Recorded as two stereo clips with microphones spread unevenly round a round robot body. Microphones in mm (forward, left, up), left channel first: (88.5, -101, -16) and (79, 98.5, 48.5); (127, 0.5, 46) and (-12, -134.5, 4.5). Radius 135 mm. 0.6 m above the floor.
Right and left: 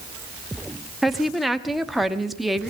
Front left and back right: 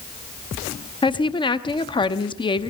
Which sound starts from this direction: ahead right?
A woman speaking, at 1.0 s.